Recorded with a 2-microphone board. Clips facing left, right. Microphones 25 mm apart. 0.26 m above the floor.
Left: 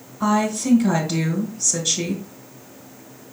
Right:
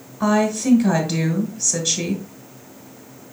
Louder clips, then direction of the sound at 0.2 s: Right 2 dB; 15° right (ahead or behind).